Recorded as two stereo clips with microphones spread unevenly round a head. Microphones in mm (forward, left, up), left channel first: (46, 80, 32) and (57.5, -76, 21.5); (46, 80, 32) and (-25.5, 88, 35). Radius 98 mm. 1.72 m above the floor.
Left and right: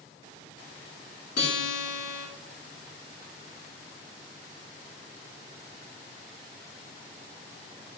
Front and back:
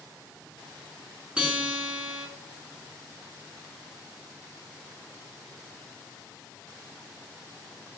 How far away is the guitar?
About 4 m.